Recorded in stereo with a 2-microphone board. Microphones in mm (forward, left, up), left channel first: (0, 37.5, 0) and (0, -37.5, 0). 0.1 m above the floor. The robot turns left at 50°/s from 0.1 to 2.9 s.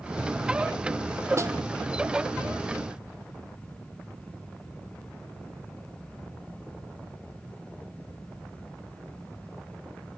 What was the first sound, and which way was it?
A snare drum, 40° right (ahead or behind).